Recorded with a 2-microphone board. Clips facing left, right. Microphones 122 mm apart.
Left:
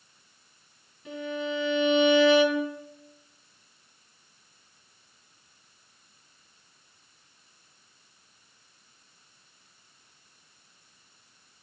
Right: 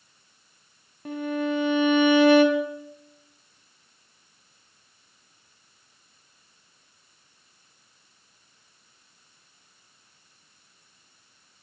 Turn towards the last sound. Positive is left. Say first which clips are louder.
# right 5 dB
turn(degrees=-55)  # may be behind; listen again after turning